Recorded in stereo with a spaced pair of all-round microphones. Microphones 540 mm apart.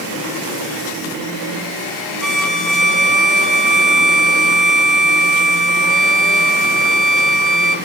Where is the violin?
35° right (ahead or behind), 0.6 m.